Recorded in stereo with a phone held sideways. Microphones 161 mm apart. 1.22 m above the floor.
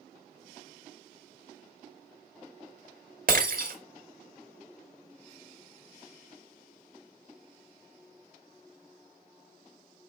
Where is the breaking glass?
60° right (ahead or behind), 1.4 m.